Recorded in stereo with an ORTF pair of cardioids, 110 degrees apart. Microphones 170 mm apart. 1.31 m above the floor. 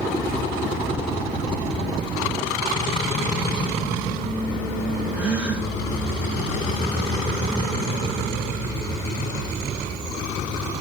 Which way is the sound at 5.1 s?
5° right.